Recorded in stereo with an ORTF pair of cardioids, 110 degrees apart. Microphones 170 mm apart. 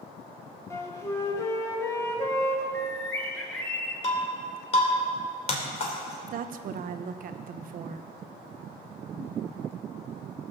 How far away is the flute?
About 1.9 m.